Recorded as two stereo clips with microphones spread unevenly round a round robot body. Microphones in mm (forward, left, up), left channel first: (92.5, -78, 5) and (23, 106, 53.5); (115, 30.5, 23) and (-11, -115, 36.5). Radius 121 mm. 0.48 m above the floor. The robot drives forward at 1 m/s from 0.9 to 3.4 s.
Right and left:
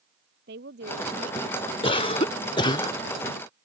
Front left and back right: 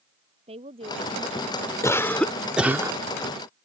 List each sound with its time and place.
0.5 s a woman speaking: 160° left
1.8 s a cough: 20° right; by 3.0 s 75° right